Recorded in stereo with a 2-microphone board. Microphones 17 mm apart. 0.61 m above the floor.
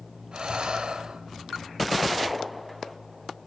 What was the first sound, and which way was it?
Breathing, 60° right (ahead or behind).